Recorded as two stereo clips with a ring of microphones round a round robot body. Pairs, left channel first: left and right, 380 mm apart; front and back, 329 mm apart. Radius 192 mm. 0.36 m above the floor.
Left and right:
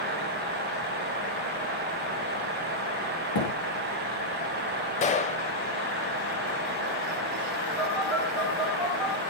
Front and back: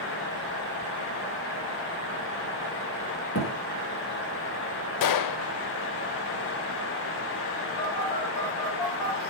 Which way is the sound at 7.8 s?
Straight ahead.